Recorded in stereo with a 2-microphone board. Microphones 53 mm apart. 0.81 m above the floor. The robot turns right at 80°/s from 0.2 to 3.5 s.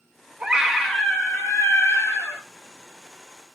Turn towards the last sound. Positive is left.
turn(degrees=-135)